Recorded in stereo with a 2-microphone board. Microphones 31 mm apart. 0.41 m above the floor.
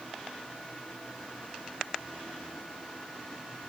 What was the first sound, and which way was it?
Only background noise.